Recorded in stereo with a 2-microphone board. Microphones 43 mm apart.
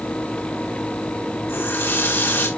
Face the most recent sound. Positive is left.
turn(degrees=65)  # may be behind; listen again after turning